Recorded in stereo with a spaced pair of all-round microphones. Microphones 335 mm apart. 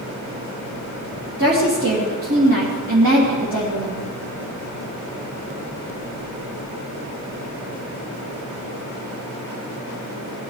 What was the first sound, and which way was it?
A woman speaking, 80° right.